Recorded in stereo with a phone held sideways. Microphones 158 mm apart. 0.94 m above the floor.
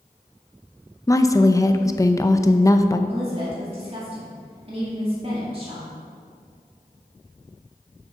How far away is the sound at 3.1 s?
About 2.5 m.